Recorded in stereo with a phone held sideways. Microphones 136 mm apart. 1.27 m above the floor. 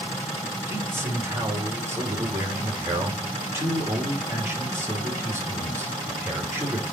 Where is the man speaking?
20° right (ahead or behind), 3 m.